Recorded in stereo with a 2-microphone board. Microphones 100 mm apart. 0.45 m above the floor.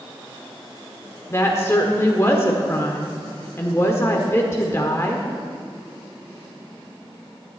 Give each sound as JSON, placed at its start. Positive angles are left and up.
{"t": 1.3, "sound": "a woman speaking", "side_deg": 25, "distance_m": 1.3}